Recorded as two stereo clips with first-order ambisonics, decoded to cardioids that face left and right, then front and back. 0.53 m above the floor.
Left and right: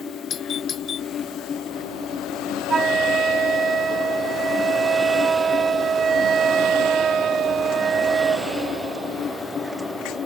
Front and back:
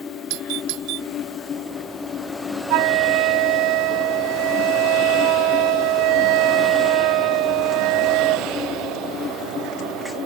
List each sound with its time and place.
0.3 s a doorbell: 150° left
2.7 s a flute: 160° right